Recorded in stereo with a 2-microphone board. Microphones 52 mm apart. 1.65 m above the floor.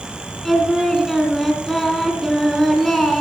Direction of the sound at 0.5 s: 5° left (ahead or behind).